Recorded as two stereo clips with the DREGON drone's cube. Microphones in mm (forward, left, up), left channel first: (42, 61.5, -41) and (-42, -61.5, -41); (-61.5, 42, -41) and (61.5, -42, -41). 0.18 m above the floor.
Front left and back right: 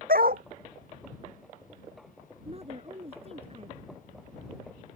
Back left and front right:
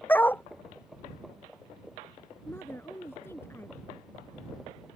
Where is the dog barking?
135° right.